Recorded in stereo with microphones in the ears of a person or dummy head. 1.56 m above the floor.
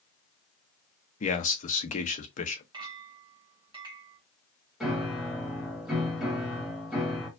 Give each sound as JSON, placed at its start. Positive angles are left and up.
{"t": 1.2, "sound": "a man speaking", "side_deg": 45, "distance_m": 0.7}
{"t": 2.7, "sound": "a clink", "side_deg": -25, "distance_m": 1.3}
{"t": 4.8, "sound": "a piano", "side_deg": 0, "distance_m": 1.4}